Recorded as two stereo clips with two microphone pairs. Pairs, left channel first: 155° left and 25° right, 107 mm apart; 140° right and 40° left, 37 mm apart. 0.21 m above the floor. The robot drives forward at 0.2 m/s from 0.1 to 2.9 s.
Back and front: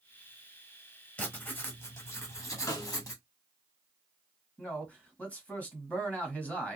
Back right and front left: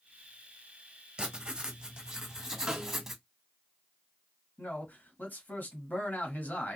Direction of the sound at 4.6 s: 130° right.